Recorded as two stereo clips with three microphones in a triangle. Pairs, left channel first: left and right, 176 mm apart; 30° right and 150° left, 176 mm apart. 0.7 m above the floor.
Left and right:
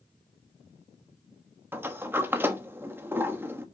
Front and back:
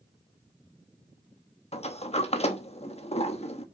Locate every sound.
1.7 s a sliding door: 20° right, 1.0 m